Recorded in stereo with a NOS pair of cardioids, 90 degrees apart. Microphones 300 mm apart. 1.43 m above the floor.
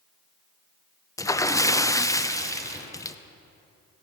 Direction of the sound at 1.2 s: 10° left.